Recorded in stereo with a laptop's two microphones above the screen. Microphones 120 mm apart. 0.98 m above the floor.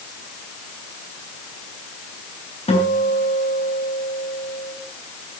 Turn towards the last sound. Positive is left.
turn(degrees=65)  # may be behind; listen again after turning